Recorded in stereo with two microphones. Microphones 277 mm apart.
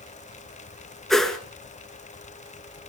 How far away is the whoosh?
About 1.7 m.